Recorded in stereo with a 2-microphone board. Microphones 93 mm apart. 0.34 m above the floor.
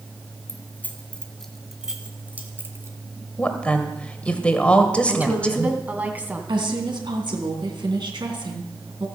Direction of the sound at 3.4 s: 15° left (ahead or behind).